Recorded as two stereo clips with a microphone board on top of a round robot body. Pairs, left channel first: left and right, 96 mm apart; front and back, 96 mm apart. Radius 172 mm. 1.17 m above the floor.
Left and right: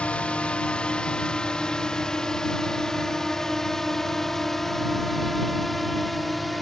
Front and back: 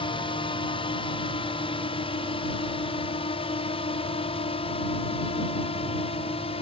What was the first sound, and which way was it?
A drone, 15° left.